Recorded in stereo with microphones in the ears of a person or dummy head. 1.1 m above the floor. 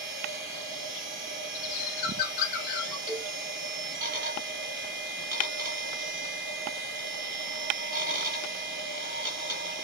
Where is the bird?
55° left (ahead or behind), 0.8 m.